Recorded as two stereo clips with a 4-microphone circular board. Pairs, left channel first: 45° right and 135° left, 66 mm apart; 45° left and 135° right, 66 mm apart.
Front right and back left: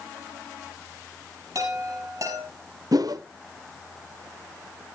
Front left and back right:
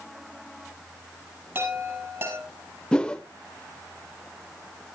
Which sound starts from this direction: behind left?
A whoosh, at 2.9 s.